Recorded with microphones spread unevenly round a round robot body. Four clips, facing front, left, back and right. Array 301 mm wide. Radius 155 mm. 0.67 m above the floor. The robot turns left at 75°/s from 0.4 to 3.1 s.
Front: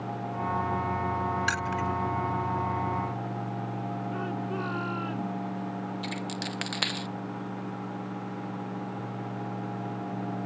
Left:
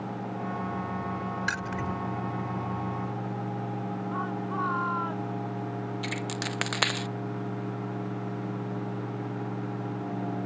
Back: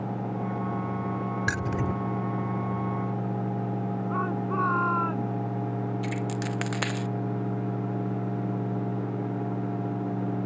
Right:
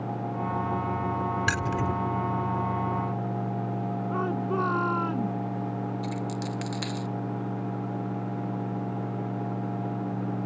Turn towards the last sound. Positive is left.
turn(degrees=90)